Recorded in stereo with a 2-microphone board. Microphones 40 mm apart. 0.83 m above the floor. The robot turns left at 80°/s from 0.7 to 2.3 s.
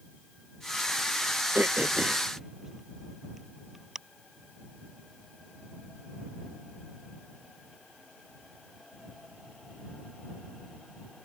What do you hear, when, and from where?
1.6 s throat clearing: 70° right (ahead or behind); by 4.0 s 10° right (ahead or behind)